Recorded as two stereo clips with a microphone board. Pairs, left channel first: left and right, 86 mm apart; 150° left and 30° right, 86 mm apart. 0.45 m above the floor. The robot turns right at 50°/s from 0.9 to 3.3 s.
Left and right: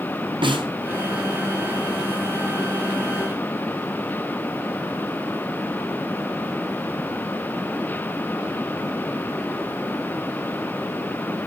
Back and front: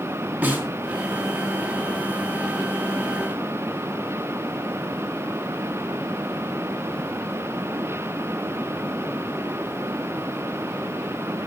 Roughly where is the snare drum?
Right.